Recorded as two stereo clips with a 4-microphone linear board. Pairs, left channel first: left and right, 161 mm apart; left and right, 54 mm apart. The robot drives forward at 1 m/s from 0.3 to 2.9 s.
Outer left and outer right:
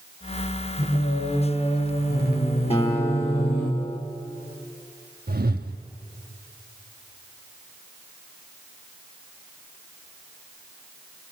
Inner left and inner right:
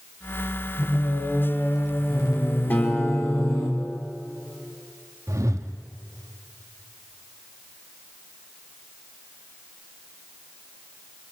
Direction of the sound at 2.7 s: 40° left (ahead or behind).